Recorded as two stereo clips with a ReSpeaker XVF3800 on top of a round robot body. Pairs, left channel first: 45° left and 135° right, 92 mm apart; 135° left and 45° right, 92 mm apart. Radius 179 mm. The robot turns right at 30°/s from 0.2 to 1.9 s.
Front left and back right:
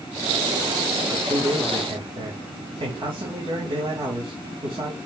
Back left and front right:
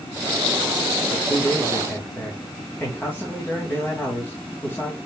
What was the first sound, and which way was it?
A man speaking, 175° left.